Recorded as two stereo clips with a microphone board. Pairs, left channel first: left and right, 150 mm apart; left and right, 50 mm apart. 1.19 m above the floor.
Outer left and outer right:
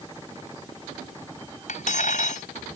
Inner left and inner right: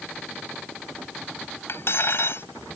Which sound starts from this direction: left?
Cutlery clinking, at 1.7 s.